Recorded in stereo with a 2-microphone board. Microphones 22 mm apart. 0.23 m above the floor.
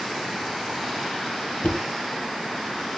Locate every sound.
1.6 s knocking: 75° left (ahead or behind), 5.5 m